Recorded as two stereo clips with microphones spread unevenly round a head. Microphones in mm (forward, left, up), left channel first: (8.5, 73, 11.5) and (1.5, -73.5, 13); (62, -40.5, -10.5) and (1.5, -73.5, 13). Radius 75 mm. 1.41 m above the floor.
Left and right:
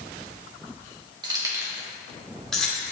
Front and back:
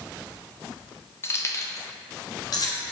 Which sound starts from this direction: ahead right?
Keys jangling, at 1.2 s.